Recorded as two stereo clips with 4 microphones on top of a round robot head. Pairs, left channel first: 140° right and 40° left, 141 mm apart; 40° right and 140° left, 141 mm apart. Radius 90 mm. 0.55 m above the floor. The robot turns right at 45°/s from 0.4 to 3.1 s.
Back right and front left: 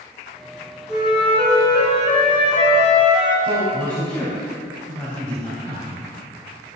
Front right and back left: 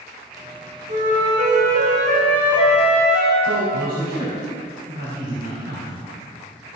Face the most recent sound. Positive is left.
turn(degrees=150)